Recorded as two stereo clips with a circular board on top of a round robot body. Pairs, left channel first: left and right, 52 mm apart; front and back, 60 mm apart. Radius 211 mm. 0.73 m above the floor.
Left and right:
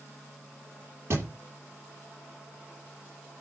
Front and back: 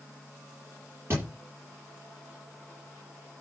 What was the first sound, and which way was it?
A thud, 130° right.